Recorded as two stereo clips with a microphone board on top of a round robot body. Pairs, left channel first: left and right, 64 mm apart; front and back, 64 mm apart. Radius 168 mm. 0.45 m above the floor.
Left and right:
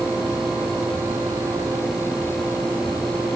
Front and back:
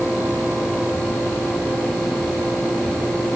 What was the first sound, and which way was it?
Only background noise.